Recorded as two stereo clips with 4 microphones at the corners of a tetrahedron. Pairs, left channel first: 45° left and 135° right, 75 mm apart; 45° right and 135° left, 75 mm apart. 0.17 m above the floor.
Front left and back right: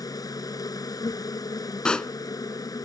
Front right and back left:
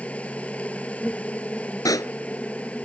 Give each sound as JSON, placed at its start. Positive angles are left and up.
{"t": 0.0, "sound": "an insect", "azimuth_deg": 25}
{"t": 1.9, "sound": "a pop", "azimuth_deg": -30}